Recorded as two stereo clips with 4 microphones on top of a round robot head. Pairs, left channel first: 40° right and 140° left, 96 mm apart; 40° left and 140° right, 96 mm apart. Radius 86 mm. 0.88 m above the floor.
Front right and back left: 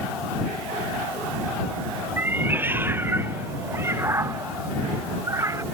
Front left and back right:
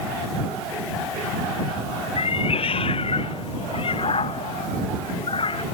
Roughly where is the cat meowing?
Left.